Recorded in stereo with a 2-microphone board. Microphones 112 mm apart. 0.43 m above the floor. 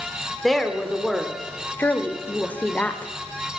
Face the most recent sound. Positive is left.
turn(degrees=15)  # may be behind; listen again after turning